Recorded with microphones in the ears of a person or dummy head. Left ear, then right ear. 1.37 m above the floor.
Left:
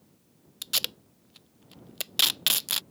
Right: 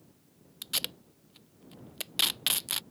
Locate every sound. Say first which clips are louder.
0.6 s tape being pulled: left 4 dB; 15° left (ahead or behind)